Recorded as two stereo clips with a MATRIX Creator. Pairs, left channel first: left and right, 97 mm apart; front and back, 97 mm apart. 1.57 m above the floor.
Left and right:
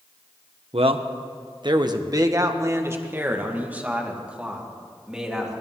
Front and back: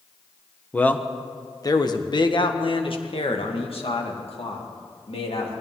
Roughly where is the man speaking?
Right.